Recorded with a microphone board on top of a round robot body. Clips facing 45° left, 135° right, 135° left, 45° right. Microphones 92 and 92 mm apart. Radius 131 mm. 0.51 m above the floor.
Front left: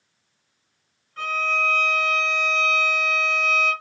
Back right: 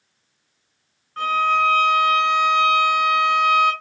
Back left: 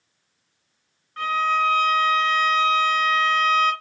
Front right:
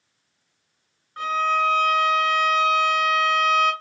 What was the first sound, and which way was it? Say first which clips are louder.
A violin: back right 7 dB, even; 115° right.